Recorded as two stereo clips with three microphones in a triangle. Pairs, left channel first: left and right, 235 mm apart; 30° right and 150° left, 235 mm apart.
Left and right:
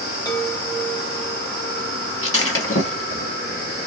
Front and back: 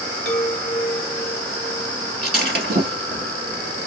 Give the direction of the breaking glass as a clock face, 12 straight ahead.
9 o'clock.